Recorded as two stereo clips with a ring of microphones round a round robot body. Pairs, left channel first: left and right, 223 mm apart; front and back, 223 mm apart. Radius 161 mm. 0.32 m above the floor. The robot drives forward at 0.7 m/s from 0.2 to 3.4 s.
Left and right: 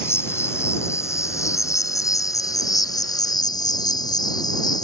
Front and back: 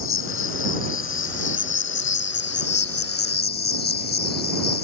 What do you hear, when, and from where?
0.0 s an insect: 10° left; by 4.9 s 20° left